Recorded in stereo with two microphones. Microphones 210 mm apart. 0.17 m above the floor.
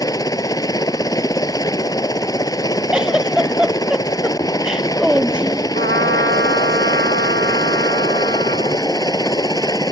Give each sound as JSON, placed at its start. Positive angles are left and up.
{"t": 0.0, "sound": "a helicopter", "side_deg": 15}
{"t": 2.9, "sound": "a giggle", "side_deg": -5}
{"t": 5.7, "sound": "a trumpet", "side_deg": -60}